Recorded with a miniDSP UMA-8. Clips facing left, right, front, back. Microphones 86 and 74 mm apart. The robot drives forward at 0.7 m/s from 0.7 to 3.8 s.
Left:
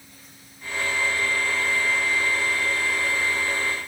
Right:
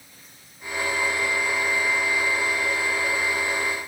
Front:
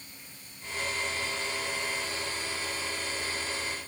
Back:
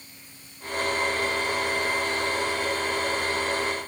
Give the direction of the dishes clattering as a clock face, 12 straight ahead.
I don't hear dishes clattering.